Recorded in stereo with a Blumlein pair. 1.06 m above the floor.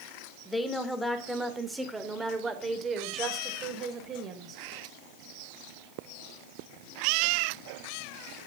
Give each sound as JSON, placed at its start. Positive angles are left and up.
{"t": 0.5, "sound": "a woman speaking", "azimuth_deg": 10, "distance_m": 3.0}